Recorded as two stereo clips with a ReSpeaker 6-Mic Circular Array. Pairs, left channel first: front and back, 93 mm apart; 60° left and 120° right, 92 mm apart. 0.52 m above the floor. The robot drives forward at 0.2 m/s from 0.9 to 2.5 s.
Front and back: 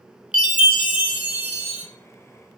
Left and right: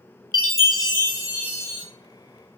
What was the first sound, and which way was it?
A chime, 105° left.